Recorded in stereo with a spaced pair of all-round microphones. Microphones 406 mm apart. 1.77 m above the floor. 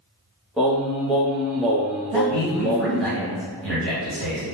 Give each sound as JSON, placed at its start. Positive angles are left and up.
{"t": 0.6, "sound": "singing", "side_deg": 0, "distance_m": 0.8}
{"t": 2.1, "sound": "a man speaking", "side_deg": -80, "distance_m": 1.6}